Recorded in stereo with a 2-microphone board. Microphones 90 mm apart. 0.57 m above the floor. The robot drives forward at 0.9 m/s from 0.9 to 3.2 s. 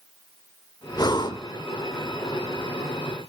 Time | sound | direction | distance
1.0 | breathing | 45° left (ahead or behind) | 1.5 m